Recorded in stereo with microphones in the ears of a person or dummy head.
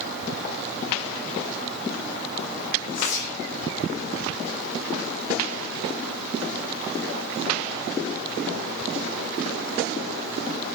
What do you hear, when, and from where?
2.9 s whispering: 75° left (ahead or behind), 1.2 m